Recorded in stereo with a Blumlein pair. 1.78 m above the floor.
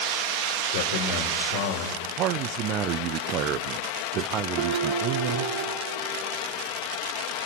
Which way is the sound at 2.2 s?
35° right.